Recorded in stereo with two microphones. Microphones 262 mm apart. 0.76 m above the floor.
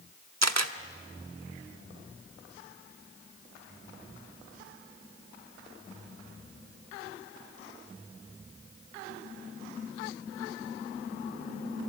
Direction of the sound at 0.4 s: 80° right.